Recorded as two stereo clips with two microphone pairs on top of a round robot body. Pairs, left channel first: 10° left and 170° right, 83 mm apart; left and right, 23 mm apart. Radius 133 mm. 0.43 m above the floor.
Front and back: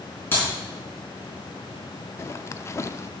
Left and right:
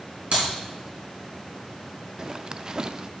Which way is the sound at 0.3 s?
55° right.